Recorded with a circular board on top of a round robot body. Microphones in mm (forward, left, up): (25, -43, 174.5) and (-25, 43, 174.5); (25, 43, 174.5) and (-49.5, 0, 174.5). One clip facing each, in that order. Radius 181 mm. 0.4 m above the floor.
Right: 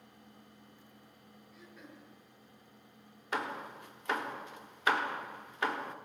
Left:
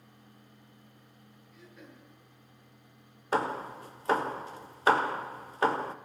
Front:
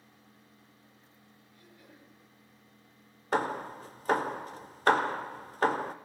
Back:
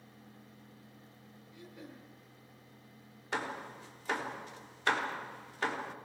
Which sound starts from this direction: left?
Hammering, at 3.3 s.